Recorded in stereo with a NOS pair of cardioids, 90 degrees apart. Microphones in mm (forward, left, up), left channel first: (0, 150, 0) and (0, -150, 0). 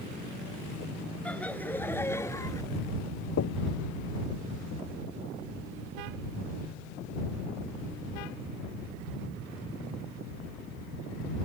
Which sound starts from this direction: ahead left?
Knocking, at 3.4 s.